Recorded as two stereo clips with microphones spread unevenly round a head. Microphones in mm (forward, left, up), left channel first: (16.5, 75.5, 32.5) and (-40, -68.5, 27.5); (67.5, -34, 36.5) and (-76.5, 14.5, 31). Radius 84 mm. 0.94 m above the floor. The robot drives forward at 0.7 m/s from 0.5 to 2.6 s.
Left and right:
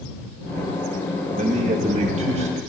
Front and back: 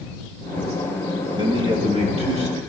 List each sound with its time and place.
1.4 s a man speaking: 145° right, 1.9 m; by 2.6 s 155° right, 2.5 m